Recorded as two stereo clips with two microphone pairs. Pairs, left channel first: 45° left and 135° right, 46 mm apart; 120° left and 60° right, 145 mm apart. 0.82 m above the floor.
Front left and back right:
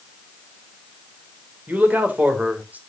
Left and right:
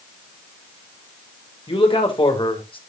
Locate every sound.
1.7 s a man speaking: 175° left, 3 m